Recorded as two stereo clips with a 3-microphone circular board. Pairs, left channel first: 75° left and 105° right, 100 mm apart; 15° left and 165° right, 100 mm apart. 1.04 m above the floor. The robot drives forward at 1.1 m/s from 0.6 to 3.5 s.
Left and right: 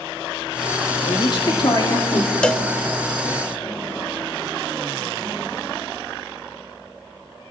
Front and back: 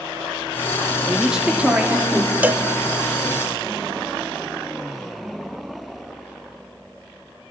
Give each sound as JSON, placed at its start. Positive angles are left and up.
{"t": 1.1, "sound": "a woman speaking", "azimuth_deg": 105, "distance_m": 2.5}
{"t": 2.4, "sound": "a cowbell", "azimuth_deg": 140, "distance_m": 0.7}